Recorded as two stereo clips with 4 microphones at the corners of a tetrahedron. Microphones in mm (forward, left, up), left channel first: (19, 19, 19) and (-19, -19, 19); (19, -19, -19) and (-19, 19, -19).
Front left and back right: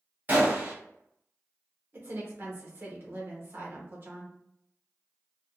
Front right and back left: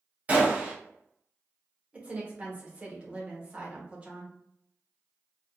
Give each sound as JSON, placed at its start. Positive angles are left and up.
{"t": 0.3, "sound": "a gunshot", "azimuth_deg": -175, "distance_m": 1.4}
{"t": 1.9, "sound": "a woman speaking", "azimuth_deg": -165, "distance_m": 1.1}